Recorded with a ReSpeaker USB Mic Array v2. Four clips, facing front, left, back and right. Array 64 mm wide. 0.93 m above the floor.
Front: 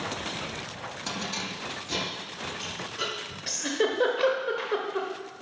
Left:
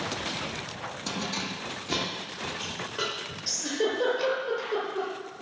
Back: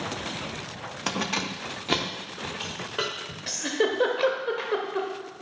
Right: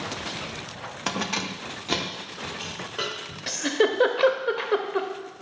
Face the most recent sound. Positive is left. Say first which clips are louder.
# right 6 dB, back 1 dB
turn(degrees=-95)